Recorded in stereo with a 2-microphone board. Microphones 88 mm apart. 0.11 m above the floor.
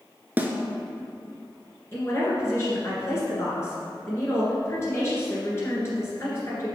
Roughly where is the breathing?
No breathing in this recording.